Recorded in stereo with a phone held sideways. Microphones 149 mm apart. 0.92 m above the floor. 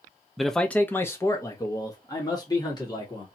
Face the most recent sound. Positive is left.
turn(degrees=25)  # may be behind; listen again after turning